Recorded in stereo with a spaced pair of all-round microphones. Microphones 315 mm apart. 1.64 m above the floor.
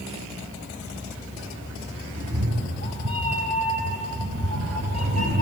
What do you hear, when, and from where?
2.1 s a cat meowing: 65° right (ahead or behind), 3.5 m; by 5.4 s 55° right (ahead or behind), 3 m